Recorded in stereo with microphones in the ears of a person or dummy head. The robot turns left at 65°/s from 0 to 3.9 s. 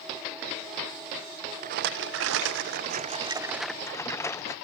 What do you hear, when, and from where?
1.6 s a rattle: 50° right, 0.9 m; by 4.5 s 160° left, 0.9 m